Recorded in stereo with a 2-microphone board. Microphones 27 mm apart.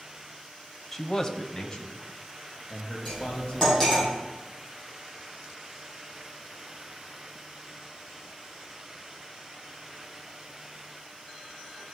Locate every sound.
0.9 s a man speaking: 10° left (ahead or behind), 0.9 m; by 4.0 s 30° left (ahead or behind), 5 m
3.0 s cutlery clinking: 5° left (ahead or behind), 5.5 m